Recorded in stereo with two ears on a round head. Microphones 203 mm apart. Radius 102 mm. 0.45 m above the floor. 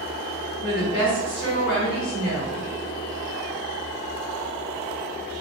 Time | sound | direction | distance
0.6 | a woman speaking | 40° left (ahead or behind) | 1.5 m